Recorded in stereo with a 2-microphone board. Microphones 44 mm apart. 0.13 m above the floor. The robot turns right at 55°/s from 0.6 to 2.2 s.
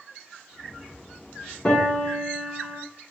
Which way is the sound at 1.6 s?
20° left.